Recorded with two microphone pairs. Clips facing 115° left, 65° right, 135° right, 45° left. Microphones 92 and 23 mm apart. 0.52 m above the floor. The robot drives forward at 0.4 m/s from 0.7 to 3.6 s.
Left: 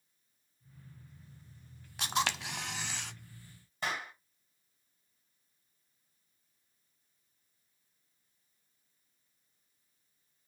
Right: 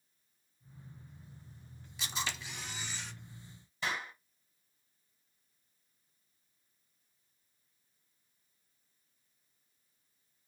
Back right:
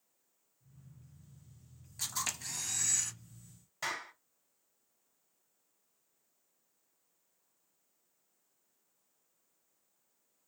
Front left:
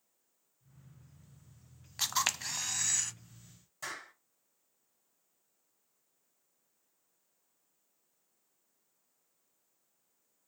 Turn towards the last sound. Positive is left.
turn(degrees=160)